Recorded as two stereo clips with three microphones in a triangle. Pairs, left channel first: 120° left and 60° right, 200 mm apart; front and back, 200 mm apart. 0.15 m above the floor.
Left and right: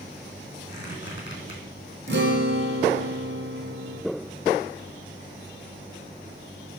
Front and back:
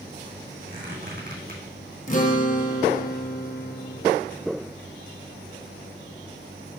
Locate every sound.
0.7 s a squeak: 140° left, 2.5 m
2.1 s a guitar: 45° right, 1.1 m